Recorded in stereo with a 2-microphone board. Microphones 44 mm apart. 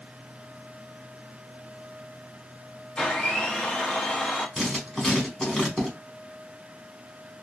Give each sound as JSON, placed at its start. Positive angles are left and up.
{"t": 3.0, "sound": "a blender", "side_deg": 15, "distance_m": 0.7}
{"t": 4.6, "sound": "writing", "side_deg": 10, "distance_m": 1.3}